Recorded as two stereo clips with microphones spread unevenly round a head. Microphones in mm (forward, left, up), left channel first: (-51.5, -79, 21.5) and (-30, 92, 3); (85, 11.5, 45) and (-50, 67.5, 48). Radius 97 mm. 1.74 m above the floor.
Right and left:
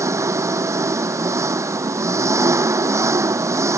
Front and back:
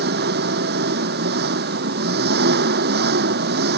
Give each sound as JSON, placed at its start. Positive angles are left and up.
{"t": 0.0, "sound": "an engine running", "azimuth_deg": 155}